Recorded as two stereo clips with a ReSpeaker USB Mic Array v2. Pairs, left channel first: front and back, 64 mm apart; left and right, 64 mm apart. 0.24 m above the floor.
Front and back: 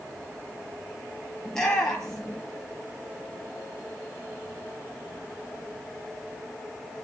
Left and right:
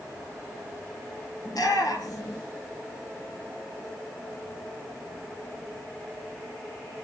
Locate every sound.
1.4 s a shout: 85° left, 6 m